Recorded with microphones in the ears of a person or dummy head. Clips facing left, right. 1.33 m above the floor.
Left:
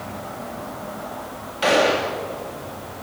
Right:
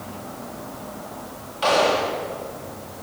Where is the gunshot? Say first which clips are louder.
Left 1 dB; 25° left (ahead or behind), 1.5 m.